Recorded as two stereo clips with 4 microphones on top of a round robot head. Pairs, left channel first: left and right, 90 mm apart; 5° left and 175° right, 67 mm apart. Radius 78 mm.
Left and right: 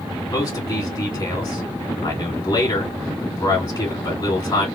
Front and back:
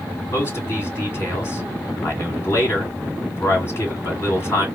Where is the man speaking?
45° left, 2.5 m.